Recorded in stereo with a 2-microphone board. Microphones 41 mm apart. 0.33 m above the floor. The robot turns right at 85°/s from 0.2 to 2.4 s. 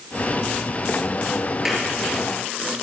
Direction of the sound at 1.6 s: 10° right (ahead or behind).